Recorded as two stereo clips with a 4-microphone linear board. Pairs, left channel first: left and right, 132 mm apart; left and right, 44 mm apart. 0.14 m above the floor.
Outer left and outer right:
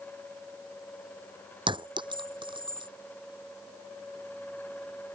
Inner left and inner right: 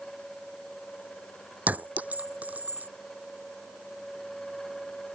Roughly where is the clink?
Right.